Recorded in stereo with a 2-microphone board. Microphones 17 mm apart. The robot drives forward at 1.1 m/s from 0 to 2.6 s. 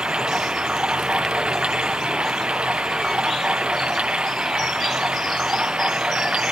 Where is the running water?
75° right (ahead or behind); by 6.5 s 85° right.